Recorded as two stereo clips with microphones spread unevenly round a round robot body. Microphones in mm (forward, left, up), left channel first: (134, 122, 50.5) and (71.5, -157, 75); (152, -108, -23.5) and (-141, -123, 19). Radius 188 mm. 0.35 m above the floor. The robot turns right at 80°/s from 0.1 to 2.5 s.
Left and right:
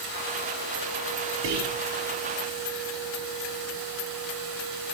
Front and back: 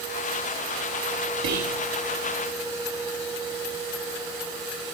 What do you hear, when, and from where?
1.4 s whispering: 160° right, 7.5 m; by 1.8 s 130° right, 7.5 m